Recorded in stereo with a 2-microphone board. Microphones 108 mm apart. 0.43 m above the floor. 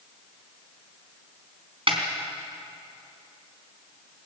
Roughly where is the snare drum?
Right.